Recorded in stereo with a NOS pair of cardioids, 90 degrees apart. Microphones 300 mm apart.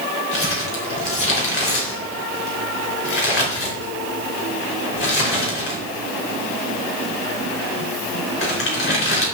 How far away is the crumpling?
About 4 m.